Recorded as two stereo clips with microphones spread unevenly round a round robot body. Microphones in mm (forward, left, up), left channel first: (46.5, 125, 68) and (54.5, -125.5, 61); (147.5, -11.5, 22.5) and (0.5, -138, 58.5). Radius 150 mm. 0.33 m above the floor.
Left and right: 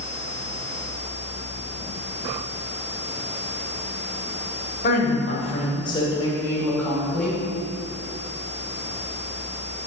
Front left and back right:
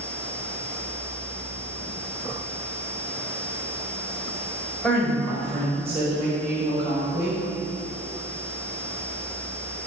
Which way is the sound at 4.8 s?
120° left.